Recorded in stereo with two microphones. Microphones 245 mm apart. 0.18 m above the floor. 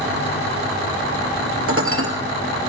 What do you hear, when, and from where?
1.7 s dishes clattering: 60° right (ahead or behind), 2 m